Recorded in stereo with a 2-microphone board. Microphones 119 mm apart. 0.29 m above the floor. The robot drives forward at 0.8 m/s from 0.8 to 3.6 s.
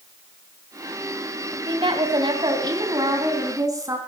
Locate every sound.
1.7 s a woman speaking: 45° right (ahead or behind), 2.0 m; by 4.0 s 30° right (ahead or behind), 3 m